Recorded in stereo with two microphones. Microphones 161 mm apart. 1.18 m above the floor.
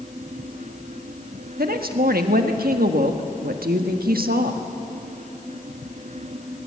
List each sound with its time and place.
1.6 s a woman speaking: 70° right (ahead or behind), 1.4 m